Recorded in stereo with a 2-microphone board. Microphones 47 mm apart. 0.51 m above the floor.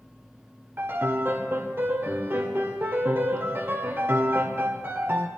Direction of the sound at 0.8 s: 55° right (ahead or behind).